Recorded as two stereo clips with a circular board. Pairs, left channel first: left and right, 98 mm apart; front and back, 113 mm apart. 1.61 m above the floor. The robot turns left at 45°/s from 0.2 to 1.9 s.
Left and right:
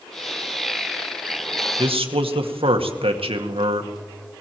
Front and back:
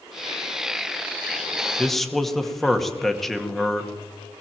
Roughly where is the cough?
No cough in this recording.